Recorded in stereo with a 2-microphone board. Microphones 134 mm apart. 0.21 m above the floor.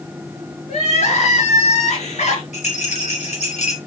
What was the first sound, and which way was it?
Crying, 60° left (ahead or behind).